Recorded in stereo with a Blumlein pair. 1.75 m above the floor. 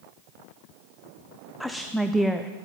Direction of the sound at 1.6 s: Straight ahead.